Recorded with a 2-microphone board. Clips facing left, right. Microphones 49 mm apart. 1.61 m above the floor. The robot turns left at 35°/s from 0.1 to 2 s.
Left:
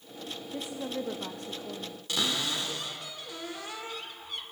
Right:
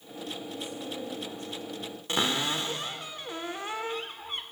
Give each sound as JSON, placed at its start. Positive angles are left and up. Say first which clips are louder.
{"t": 0.5, "sound": "a woman speaking", "louder": "left 2 dB", "azimuth_deg": 140, "distance_m": 1.3}
{"t": 2.1, "sound": "a cupboard door", "louder": "right 3 dB", "side_deg": -30, "distance_m": 1.6}